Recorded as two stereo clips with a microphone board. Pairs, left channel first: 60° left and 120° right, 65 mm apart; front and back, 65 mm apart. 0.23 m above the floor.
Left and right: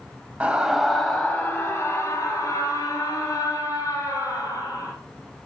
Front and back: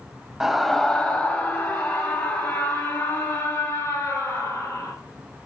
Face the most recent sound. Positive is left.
turn(degrees=30)